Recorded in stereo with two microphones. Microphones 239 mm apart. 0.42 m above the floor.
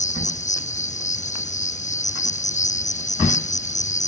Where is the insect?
30° left (ahead or behind).